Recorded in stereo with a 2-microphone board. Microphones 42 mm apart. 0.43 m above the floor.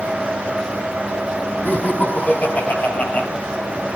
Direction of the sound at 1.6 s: 50° left (ahead or behind).